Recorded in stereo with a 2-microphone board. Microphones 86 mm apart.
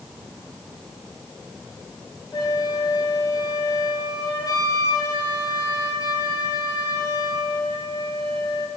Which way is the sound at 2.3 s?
50° left (ahead or behind).